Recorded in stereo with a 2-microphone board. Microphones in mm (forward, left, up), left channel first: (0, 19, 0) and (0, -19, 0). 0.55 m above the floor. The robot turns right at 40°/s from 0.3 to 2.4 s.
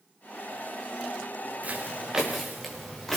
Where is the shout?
I don't hear a shout.